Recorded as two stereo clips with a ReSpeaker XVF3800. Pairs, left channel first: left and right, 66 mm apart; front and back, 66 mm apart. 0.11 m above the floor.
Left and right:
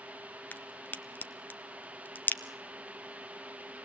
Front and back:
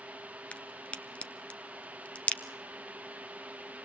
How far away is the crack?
About 1.0 m.